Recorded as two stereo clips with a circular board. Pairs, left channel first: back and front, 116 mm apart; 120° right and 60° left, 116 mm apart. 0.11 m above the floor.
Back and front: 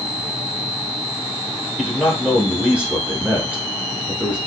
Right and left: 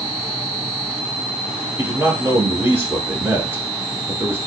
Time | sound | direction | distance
1.8 | a man speaking | 55° left | 1.1 m